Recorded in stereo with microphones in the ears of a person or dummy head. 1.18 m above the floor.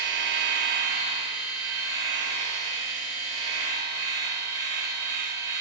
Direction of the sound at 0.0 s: 20° right (ahead or behind).